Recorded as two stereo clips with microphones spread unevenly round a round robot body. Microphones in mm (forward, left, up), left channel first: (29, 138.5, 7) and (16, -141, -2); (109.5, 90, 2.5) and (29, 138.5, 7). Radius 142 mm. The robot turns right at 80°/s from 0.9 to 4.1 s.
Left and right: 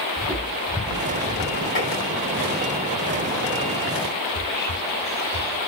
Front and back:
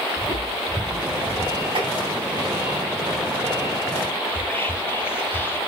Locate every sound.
0.2 s footsteps: 125° right, 1.0 m; by 1.6 s 140° left, 1.1 m
1.8 s tapping: 145° left, 2.5 m; by 1.9 s 160° left, 2.5 m
4.3 s whispering: 35° left, 0.7 m